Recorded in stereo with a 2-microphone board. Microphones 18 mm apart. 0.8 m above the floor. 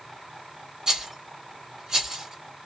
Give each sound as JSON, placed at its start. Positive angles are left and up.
{"t": 0.9, "sound": "a rattle", "side_deg": -45, "distance_m": 1.6}